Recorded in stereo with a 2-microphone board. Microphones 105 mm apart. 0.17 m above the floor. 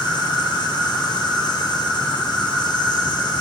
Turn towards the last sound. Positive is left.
turn(degrees=50)  # may be behind; listen again after turning